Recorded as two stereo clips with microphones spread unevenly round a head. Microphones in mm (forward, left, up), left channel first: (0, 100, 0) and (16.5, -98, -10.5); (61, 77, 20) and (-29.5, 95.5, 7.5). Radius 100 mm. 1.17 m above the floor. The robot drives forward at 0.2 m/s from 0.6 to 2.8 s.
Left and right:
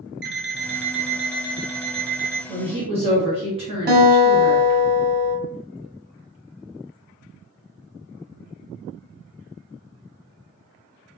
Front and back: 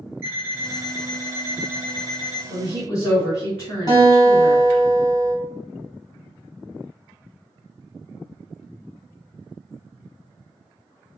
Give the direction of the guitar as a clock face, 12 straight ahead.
4 o'clock.